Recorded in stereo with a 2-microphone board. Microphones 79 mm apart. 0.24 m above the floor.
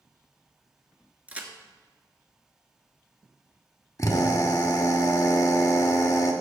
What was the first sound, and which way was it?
A crack, 20° right (ahead or behind).